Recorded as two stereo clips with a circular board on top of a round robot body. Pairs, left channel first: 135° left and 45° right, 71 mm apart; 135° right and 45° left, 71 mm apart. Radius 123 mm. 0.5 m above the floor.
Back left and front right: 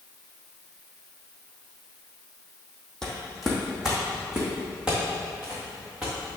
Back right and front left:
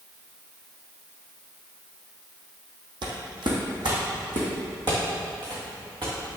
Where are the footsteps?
50° left, 1.6 m; by 6.4 s 25° left, 4 m.